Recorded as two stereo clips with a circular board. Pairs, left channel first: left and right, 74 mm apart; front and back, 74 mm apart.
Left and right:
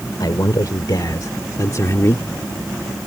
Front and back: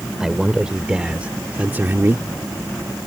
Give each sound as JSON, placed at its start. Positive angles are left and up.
{"t": 0.2, "sound": "a man speaking", "azimuth_deg": 95}